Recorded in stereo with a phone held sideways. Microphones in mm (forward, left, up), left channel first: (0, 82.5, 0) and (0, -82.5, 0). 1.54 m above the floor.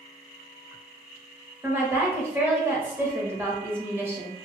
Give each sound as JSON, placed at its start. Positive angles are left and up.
{"t": 1.6, "sound": "a woman speaking", "side_deg": -15, "distance_m": 1.2}